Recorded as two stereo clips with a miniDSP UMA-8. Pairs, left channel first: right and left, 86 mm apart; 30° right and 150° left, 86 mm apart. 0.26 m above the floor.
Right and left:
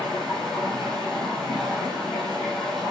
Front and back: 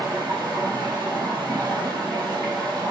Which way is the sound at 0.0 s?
175° right.